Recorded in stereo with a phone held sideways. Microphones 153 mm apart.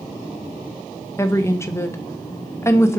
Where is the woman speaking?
15° left (ahead or behind), 0.7 m.